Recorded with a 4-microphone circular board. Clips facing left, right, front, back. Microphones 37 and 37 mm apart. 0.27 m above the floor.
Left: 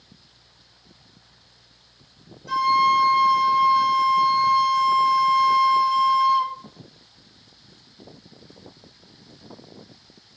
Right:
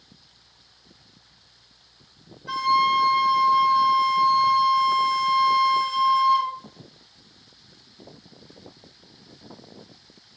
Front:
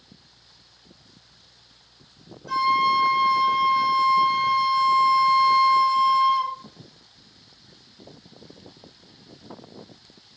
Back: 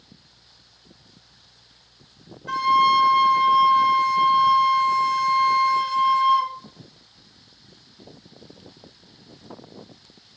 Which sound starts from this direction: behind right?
A flute, at 2.5 s.